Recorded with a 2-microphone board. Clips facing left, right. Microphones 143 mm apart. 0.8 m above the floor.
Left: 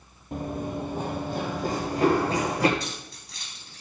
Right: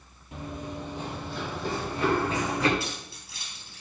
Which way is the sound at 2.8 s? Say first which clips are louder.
Even; 5° right (ahead or behind).